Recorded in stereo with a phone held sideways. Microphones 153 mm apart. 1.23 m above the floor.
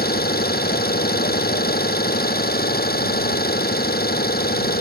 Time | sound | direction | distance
0.0 | an engine running | 80° left | ?